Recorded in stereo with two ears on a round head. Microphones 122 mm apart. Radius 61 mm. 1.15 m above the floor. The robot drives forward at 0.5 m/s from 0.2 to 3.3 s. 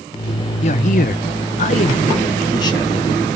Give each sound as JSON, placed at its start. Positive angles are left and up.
{"t": 0.6, "sound": "a man speaking", "side_deg": 50, "distance_m": 0.6}